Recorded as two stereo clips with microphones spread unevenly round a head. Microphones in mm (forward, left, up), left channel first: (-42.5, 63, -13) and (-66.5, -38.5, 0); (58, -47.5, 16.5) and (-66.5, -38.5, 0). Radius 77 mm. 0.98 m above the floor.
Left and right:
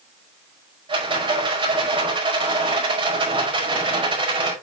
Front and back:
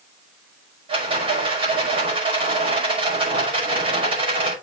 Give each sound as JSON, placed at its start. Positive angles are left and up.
{"t": 0.9, "sound": "a rattle", "azimuth_deg": -140, "distance_m": 5.5}